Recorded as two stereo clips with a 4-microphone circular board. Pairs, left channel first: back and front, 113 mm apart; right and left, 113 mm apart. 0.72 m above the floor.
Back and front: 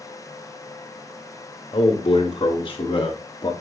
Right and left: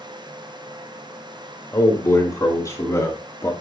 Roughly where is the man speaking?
Behind right.